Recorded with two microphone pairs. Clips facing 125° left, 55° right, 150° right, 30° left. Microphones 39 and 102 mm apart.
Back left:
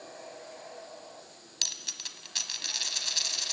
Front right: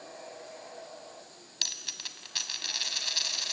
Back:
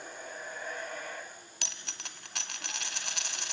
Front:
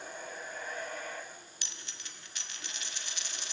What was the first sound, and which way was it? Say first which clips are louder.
A dropped coin: front right 1 dB, back 4 dB; 135° right.